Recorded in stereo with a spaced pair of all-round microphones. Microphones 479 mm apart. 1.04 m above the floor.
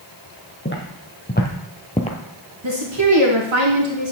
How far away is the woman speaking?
About 2 m.